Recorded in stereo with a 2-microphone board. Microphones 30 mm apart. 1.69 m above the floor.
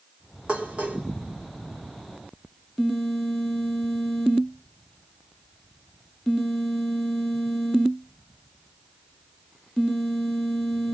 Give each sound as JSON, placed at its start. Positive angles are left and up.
{"t": 0.5, "sound": "dishes clattering", "side_deg": -45, "distance_m": 3.5}